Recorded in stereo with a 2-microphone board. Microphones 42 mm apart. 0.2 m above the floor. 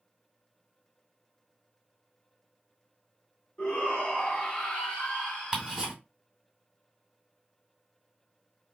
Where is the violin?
I don't hear a violin.